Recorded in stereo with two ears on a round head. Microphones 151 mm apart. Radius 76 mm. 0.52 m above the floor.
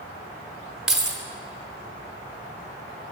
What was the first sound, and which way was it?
Keys jangling, 5° right (ahead or behind).